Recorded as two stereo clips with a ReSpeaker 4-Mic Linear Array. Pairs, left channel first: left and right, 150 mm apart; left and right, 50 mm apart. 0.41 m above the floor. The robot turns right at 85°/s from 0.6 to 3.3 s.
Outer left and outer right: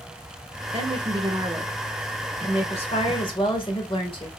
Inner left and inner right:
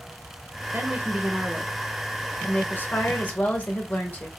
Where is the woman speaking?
95° right, 1.5 m; by 4.3 s 125° left, 1.5 m.